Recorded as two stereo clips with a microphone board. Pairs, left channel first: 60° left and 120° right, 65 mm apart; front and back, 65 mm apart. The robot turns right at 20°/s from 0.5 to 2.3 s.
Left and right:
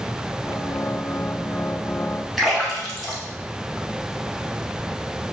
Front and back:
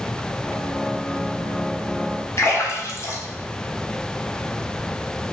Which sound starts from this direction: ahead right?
A splash, at 2.4 s.